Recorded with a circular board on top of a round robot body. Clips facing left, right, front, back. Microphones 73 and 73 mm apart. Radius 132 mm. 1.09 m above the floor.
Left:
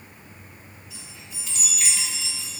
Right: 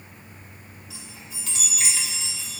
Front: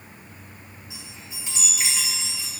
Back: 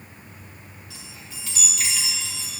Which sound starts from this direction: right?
A chime, at 0.9 s.